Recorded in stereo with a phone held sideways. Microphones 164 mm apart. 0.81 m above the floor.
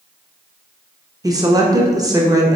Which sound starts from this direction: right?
A woman speaking, at 1.2 s.